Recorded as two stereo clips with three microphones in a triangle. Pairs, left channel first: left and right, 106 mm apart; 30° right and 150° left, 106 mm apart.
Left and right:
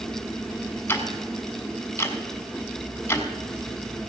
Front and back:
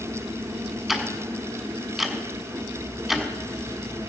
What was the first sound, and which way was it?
Ticking, 65° left.